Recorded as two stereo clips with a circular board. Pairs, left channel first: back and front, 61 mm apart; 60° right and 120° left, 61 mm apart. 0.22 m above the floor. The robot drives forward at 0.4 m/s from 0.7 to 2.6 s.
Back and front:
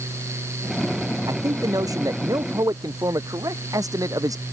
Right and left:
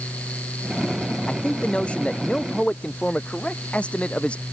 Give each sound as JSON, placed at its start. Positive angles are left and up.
{"t": 1.3, "sound": "a man speaking", "azimuth_deg": 10}